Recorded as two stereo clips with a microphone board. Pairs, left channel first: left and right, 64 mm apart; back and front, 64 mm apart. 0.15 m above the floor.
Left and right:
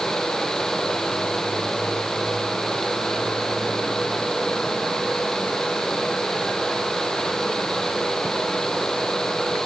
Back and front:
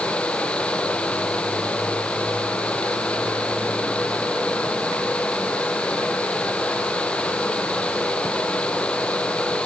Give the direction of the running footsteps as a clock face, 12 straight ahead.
I don't hear running footsteps.